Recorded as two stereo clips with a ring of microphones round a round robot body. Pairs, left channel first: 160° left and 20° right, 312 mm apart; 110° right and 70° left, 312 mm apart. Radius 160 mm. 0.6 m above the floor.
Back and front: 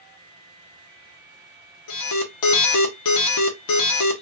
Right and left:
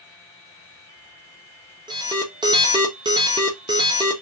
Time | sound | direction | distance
1.9 | an alarm | 145° left | 1.0 m